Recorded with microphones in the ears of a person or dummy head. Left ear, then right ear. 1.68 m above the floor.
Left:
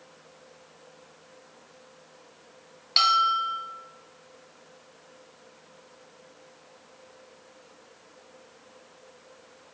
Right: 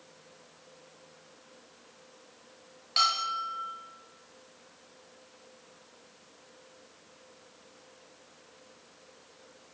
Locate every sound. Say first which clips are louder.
3.0 s a bell: left 6 dB; 20° left (ahead or behind), 1.0 m